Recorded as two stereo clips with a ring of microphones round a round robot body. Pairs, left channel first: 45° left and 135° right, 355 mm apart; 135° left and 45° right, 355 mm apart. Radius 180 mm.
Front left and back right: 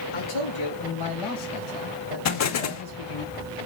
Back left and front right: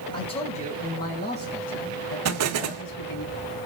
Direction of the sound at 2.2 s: Straight ahead.